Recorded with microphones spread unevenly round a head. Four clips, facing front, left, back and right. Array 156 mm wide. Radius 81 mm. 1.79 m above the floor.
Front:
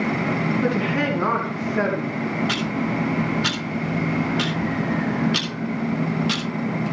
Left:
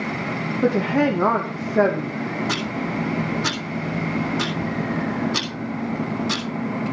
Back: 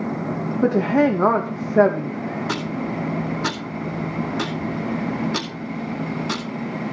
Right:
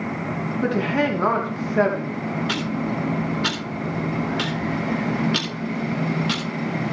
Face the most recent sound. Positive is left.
turn(degrees=160)